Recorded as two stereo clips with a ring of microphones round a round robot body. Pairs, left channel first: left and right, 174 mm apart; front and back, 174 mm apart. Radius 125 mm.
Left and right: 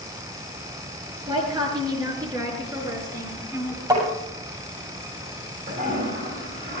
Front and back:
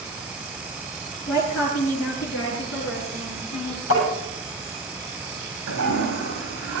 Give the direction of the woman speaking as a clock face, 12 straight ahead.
1 o'clock.